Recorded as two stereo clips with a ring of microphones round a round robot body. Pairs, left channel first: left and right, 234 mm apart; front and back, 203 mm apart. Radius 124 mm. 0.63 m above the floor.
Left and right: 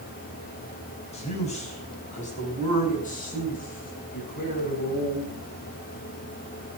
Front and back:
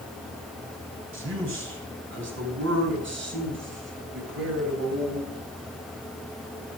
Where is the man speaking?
155° left, 5 m; by 5.4 s 145° left, 7.5 m.